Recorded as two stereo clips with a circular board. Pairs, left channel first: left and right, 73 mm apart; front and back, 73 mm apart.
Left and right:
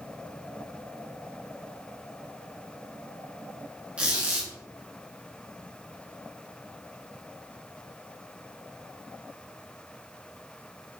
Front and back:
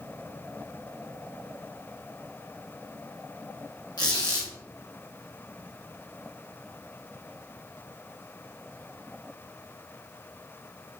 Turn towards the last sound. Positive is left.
turn(degrees=-15)